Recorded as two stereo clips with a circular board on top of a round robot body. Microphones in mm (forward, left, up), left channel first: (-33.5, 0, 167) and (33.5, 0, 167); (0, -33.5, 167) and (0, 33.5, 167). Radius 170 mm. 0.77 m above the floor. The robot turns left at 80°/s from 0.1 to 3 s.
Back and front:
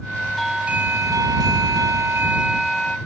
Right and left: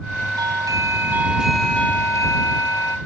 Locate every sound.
0.4 s a doorbell: 95° left; by 3.0 s 115° right